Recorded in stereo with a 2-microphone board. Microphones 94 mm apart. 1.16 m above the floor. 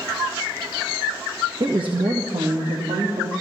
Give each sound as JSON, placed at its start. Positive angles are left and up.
{"t": 1.6, "sound": "a woman speaking", "side_deg": -50, "distance_m": 1.0}